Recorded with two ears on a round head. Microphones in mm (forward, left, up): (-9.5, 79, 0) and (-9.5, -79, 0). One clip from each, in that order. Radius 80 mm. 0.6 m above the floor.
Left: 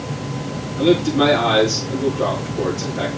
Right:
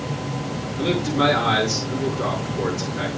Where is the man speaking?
Centre (ahead or behind), 9 m.